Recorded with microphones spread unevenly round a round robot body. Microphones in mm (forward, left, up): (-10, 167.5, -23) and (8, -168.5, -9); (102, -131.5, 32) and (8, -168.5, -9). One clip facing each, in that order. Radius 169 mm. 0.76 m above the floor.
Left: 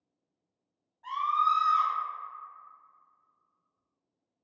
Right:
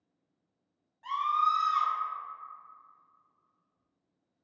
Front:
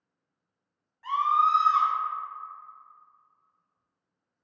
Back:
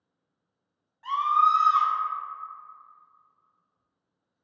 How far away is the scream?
About 1.6 m.